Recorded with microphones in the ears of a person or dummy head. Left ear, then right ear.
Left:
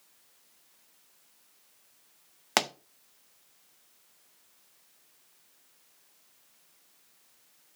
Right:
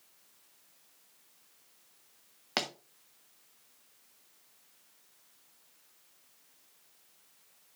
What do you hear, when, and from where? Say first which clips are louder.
2.6 s a pop: left 6 dB; 30° left (ahead or behind), 0.7 m